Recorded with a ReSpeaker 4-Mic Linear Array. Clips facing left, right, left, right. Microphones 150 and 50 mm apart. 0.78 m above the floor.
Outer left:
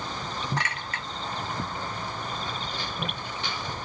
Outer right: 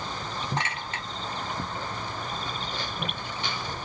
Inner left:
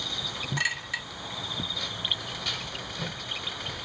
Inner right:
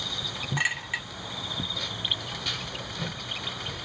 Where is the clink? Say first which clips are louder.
Outer right 1 dB, inner right 2 dB; 25° right (ahead or behind), 1.4 m.